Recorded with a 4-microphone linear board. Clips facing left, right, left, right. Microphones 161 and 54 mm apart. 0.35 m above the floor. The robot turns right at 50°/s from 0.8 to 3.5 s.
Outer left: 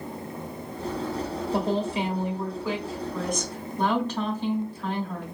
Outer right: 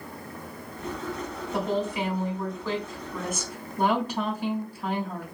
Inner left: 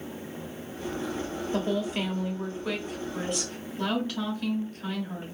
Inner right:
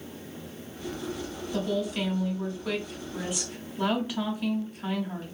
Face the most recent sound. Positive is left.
turn(degrees=-160)